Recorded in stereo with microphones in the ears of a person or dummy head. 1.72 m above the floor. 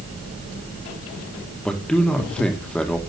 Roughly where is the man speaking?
Centre.